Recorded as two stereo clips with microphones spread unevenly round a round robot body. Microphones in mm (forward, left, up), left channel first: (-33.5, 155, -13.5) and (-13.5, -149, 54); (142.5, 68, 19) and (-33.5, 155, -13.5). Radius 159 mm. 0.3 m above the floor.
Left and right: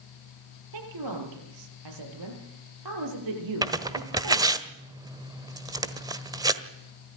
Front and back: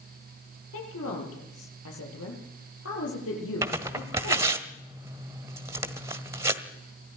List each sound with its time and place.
0.7 s a woman speaking: 60° right, 7 m
3.6 s tearing paper: 175° right, 1.1 m